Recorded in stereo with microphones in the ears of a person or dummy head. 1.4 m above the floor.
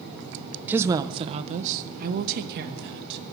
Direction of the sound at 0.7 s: 10° right (ahead or behind).